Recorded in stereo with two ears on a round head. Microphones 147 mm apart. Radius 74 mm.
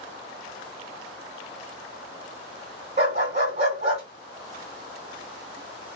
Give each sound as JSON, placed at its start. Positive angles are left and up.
{"t": 3.0, "sound": "a dog barking", "side_deg": -40, "distance_m": 2.0}